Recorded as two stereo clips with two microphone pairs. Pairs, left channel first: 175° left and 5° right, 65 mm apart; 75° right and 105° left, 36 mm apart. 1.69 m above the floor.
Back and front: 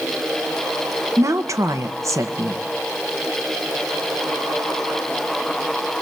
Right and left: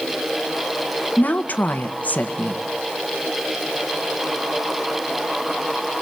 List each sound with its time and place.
1.2 s a woman speaking: 40° right, 1.6 m